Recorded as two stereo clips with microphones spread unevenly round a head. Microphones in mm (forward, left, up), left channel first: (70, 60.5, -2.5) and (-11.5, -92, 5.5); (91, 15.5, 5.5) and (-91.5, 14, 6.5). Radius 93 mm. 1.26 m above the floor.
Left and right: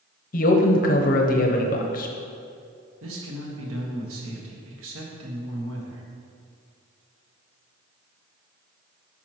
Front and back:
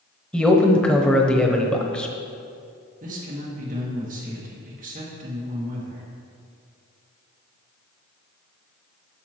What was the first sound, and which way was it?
A man speaking, 85° left.